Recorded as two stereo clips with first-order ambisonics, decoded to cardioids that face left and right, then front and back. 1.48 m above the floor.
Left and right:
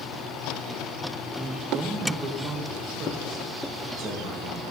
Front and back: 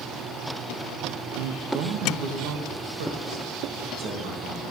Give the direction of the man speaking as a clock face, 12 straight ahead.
6 o'clock.